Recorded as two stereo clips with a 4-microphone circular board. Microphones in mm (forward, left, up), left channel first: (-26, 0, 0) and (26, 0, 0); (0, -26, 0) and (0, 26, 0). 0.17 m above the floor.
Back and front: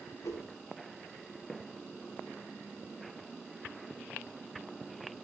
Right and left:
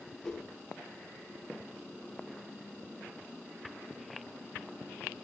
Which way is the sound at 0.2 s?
175° right.